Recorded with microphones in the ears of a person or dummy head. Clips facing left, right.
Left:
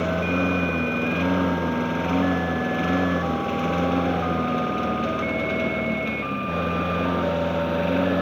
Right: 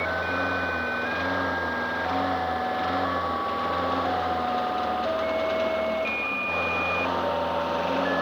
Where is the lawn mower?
35° left (ahead or behind); by 8.2 s 20° left (ahead or behind).